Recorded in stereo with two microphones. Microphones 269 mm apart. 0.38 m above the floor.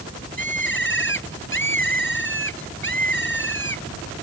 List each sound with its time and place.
0.4 s a bird: 45° left (ahead or behind)